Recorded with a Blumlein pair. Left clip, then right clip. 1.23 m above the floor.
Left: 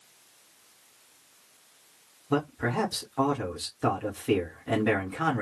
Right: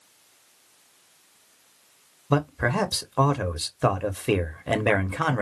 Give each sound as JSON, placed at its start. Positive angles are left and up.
{"t": 2.3, "sound": "a man speaking", "azimuth_deg": -65, "distance_m": 0.7}